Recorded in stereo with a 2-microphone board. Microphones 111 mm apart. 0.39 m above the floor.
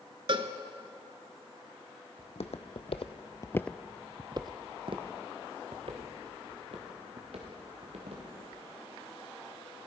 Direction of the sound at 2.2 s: 75° left (ahead or behind).